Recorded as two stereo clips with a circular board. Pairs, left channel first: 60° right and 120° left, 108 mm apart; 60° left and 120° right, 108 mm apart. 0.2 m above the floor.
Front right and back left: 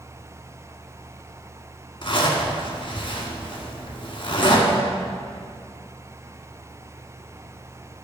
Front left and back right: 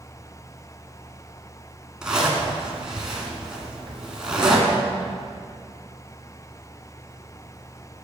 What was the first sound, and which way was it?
A zipper, 40° right.